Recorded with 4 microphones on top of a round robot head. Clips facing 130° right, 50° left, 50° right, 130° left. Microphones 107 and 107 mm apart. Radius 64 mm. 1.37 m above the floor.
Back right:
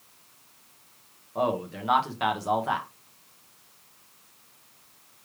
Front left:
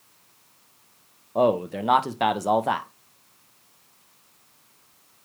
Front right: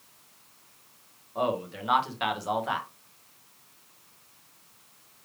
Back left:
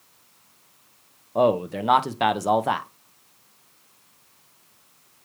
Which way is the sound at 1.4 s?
95° left.